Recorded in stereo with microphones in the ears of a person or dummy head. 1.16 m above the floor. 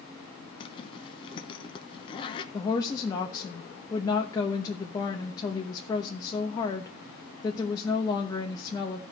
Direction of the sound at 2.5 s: 25° left (ahead or behind).